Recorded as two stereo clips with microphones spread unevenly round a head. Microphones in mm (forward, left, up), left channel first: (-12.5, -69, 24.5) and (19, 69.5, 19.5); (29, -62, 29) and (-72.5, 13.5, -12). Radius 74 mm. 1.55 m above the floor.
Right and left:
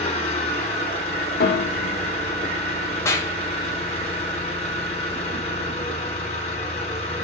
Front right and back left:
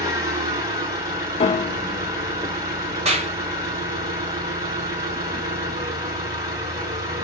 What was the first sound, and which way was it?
An engine running, 150° right.